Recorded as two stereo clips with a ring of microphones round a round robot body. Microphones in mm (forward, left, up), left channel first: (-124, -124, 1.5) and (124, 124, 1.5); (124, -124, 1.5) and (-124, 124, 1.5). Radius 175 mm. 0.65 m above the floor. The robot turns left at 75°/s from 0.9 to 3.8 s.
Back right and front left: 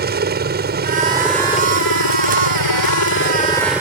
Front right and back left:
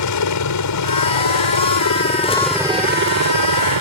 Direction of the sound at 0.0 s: 15° right.